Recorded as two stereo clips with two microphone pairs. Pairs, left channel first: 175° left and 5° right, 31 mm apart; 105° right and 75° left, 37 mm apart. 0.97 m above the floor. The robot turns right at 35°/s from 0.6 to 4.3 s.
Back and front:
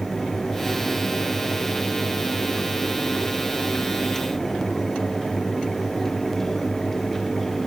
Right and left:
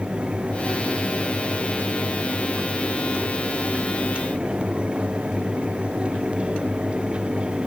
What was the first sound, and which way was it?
Only background noise.